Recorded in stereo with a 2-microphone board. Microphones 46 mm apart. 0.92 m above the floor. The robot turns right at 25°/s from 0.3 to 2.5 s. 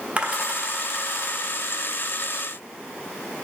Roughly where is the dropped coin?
Right.